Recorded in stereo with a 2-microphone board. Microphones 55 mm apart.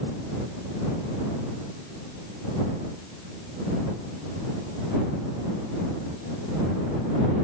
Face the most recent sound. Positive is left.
No sound to turn to.